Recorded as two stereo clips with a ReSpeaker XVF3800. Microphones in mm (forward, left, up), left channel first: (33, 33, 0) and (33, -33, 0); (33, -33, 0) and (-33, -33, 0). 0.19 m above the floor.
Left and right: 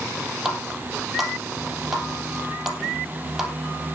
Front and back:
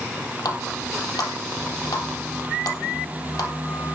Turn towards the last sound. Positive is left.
turn(degrees=-10)